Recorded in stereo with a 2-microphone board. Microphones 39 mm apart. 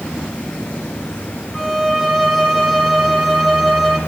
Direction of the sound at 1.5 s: 5° right (ahead or behind).